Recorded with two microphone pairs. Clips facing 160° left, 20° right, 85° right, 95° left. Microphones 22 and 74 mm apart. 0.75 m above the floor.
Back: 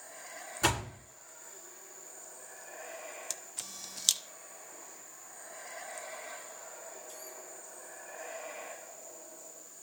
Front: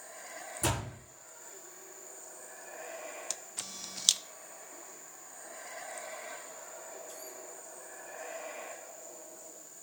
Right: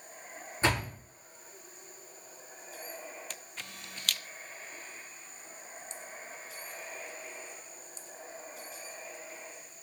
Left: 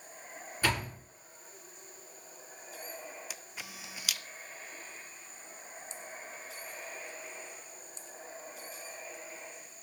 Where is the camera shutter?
40° left, 0.6 m.